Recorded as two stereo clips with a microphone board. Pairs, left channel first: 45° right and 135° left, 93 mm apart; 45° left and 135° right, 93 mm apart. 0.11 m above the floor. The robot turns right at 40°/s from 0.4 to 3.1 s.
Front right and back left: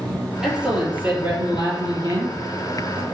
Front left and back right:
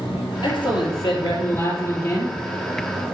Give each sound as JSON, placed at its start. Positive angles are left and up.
{"t": 0.4, "sound": "a man speaking", "azimuth_deg": 45, "distance_m": 3.0}